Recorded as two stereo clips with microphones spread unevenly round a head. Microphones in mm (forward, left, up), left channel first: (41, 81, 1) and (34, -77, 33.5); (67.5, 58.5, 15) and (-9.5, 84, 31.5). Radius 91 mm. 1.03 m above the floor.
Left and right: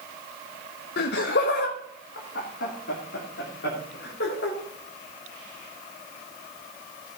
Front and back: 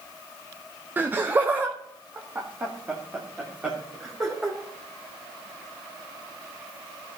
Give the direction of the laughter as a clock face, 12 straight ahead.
9 o'clock.